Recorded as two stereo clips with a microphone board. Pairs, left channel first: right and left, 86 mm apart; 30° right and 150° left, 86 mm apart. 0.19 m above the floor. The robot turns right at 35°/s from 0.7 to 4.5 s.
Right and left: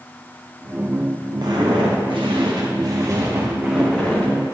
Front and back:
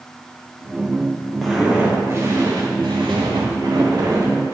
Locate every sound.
1.4 s footsteps: 60° left, 3 m; by 4.5 s 150° right, 3 m